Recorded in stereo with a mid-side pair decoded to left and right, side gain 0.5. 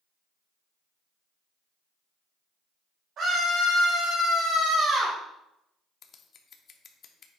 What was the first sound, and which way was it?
A scream, 65° right.